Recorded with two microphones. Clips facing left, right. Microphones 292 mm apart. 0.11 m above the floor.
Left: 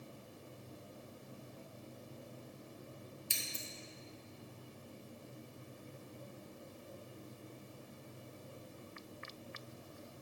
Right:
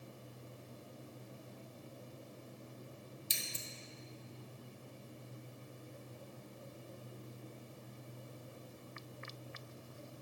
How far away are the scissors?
About 1.3 m.